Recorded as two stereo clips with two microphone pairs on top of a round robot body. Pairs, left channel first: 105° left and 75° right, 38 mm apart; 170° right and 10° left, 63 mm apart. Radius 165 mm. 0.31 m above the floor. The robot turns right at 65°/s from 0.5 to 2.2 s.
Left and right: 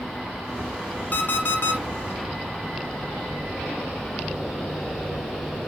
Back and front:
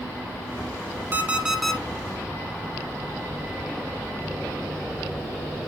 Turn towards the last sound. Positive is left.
turn(degrees=135)